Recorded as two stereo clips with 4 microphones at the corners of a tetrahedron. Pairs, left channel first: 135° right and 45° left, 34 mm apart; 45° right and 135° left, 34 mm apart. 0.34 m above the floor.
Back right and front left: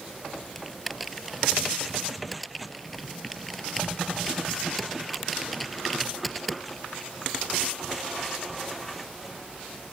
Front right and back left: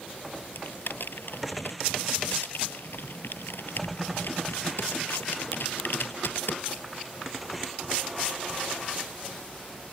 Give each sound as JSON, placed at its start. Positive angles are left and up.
{"t": 0.6, "sound": "typing on a keyboard", "azimuth_deg": -50}